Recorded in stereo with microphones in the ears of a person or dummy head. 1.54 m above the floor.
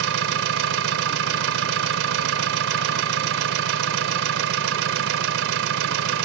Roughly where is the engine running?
Right.